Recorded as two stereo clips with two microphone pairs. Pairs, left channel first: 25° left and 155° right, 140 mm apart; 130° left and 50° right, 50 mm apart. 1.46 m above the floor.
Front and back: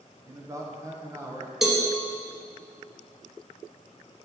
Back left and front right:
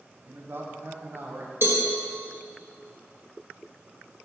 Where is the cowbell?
65° right, 1.1 m.